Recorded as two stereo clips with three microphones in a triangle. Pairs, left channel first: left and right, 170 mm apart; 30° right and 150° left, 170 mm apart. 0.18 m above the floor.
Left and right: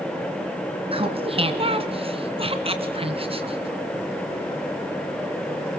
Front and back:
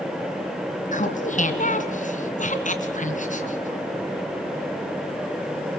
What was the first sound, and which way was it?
Laughter, 45° right.